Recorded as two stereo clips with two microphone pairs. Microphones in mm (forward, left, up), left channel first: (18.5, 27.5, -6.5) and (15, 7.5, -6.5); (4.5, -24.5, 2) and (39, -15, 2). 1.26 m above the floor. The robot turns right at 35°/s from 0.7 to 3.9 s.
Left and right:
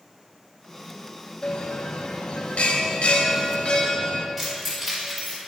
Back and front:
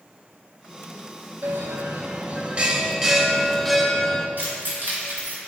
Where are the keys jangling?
5° right, 2.5 m.